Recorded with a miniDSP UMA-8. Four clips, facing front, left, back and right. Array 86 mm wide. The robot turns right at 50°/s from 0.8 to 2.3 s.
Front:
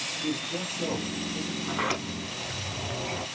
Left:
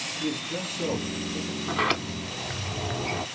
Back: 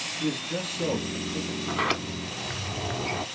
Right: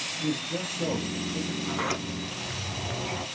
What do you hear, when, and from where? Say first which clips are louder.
0.2 s a man speaking: right 1 dB, back 2 dB; 150° left, 1.9 m; by 1.6 s 170° right, 1.9 m
1.7 s a sliding door: left 6 dB, back 2 dB; 105° left, 0.5 m; by 3.2 s 135° left, 0.5 m